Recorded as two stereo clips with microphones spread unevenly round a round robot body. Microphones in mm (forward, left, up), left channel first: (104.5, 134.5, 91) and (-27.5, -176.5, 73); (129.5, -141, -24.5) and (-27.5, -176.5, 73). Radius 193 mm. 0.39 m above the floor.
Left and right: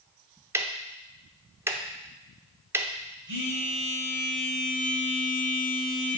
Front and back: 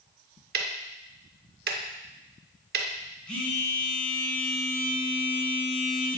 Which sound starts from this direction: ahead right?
A phone buzzing, at 3.3 s.